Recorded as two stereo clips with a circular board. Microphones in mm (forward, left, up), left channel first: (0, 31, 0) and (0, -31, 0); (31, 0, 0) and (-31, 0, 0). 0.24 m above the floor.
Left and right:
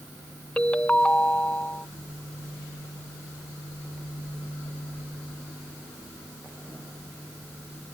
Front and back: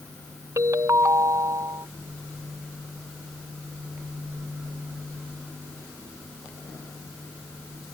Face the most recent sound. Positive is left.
turn(degrees=160)